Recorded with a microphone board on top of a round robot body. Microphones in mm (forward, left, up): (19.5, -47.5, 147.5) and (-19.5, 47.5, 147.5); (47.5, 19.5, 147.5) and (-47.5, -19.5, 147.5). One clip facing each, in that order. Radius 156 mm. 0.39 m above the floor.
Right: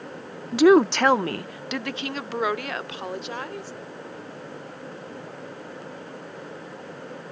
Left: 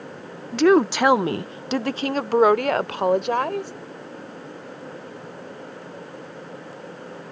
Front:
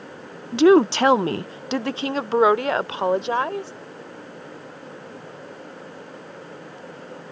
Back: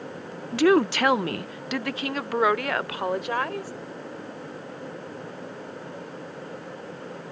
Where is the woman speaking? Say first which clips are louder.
Right 1 dB, front 5 dB; 10° right; by 3.7 s 85° left.